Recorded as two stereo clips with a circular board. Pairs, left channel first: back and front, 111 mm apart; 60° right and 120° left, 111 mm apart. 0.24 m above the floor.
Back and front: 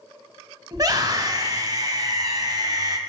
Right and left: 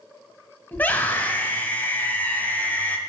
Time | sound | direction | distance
0.7 | a scream | 5° left | 1.1 m